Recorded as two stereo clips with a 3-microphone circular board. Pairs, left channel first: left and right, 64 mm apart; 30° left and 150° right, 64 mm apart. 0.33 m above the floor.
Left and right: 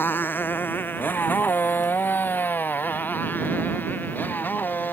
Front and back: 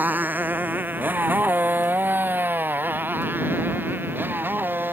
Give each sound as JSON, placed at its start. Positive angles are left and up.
{"t": 0.0, "sound": "a motorcycle", "azimuth_deg": 150}